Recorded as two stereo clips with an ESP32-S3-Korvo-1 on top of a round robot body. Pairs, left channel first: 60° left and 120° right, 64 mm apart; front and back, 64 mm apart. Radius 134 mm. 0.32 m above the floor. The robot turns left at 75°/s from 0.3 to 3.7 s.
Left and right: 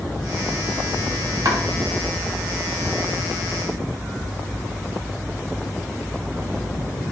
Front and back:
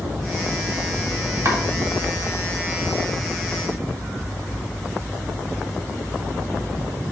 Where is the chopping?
140° right, 1.2 m; by 1.6 s 150° right, 1.2 m.